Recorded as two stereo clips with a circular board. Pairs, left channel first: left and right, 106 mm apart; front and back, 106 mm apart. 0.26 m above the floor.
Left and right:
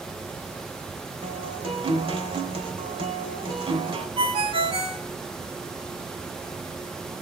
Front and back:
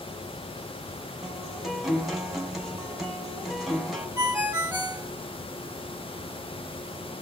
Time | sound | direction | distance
1.2 | a guitar | 90° right | 2.5 m
4.2 | a ringtone | 110° right | 2 m